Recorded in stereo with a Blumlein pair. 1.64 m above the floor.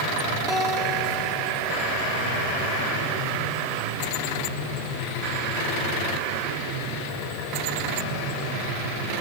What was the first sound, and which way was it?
A guitar, 15° left.